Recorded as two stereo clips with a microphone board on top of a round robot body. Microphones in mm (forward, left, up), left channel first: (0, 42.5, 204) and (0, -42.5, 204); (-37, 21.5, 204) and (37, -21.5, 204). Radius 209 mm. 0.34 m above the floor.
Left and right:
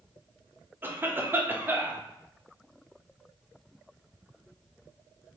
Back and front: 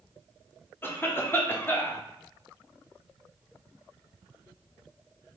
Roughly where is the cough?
Behind right.